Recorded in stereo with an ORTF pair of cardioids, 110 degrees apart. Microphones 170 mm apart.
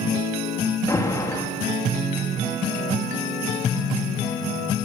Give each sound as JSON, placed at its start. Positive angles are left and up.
{"t": 0.9, "sound": "an alarm", "azimuth_deg": 20, "distance_m": 3.5}